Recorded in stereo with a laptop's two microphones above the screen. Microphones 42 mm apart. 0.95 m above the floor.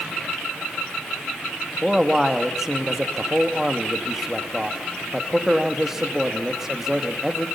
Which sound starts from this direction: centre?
A man speaking, at 1.8 s.